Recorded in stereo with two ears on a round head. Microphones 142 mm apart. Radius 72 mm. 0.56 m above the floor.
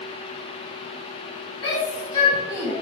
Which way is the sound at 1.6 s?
35° left (ahead or behind).